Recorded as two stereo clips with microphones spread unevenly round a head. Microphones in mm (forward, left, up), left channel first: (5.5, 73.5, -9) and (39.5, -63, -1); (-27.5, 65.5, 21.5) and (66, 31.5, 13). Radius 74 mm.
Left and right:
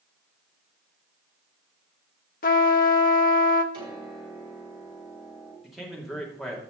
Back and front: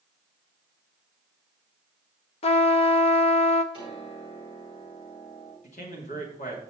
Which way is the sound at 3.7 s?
140° right.